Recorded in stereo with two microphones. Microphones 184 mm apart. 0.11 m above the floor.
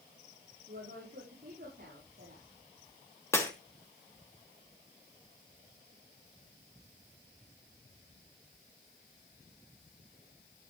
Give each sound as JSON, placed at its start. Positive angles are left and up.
{"t": 0.7, "sound": "a woman speaking", "side_deg": -55, "distance_m": 8.0}
{"t": 3.3, "sound": "breaking glass", "side_deg": 15, "distance_m": 3.5}